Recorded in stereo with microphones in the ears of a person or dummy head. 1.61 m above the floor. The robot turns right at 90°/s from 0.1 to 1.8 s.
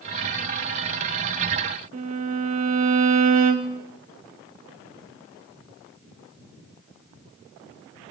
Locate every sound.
1.9 s a violin: 35° right (ahead or behind), 0.7 m